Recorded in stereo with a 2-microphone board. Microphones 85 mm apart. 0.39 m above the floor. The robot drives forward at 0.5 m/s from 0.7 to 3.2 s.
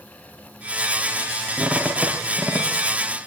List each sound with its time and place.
1.6 s a squeak: 5° right (ahead or behind), 4.5 m